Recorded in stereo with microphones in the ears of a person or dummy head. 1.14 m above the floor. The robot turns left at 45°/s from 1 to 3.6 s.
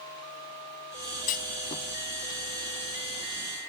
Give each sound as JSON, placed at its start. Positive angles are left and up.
{"t": 1.3, "sound": "a clunk", "side_deg": 50}